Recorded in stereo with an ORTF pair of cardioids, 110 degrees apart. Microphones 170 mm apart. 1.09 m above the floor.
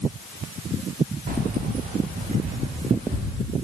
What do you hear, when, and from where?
1.3 s keys jangling: 60° right, 1.7 m; by 3.4 s 45° right, 4.5 m